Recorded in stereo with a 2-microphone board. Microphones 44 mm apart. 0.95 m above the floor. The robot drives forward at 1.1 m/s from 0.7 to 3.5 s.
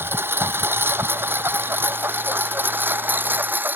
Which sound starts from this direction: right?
A lawn mower, at 0.0 s.